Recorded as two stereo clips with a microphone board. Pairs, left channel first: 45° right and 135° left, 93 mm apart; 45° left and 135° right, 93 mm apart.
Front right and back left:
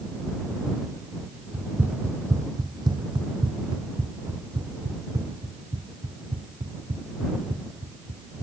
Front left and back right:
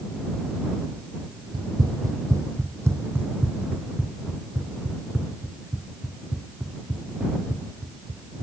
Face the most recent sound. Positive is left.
turn(degrees=140)